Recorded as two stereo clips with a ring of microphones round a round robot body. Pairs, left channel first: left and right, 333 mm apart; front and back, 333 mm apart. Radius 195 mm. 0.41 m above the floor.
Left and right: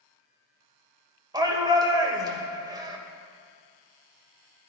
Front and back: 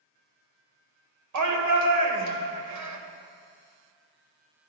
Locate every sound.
1.3 s a shout: 165° right, 2 m